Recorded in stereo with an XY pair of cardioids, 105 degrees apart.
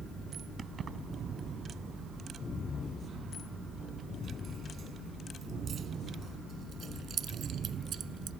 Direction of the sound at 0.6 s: 45° right.